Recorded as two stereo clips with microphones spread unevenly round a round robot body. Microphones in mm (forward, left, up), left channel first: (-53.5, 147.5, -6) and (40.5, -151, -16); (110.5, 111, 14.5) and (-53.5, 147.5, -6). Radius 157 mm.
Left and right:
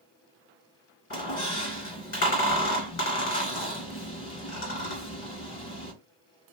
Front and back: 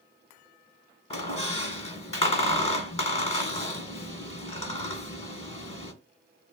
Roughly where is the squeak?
Ahead left.